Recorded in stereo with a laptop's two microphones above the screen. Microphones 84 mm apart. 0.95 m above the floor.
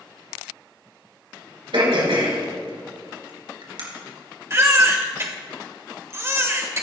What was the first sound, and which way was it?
Throat clearing, 70° right (ahead or behind).